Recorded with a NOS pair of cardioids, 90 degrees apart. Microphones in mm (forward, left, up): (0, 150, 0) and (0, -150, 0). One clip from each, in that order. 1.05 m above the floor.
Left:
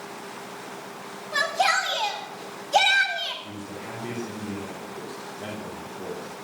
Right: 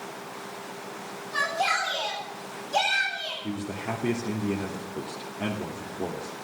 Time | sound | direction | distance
1.3 | a shout | 50° left | 9 m
3.4 | a man speaking | 65° right | 3.5 m